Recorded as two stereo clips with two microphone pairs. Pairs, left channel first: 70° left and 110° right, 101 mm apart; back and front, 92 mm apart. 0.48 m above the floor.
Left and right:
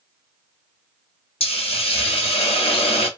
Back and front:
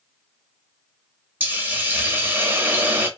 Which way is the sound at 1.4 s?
70° left.